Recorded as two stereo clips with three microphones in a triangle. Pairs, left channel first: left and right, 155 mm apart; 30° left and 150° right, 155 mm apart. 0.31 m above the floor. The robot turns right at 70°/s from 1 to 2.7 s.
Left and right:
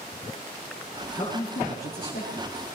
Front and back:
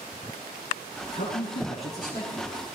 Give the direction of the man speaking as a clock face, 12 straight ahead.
11 o'clock.